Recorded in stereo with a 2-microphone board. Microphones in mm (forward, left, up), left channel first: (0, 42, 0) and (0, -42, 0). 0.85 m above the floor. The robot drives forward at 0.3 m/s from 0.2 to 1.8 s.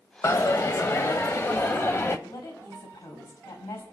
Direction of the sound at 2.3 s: 75° left (ahead or behind).